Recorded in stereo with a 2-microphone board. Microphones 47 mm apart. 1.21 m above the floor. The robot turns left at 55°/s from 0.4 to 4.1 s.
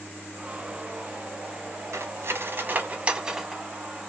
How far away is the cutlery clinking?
About 0.7 m.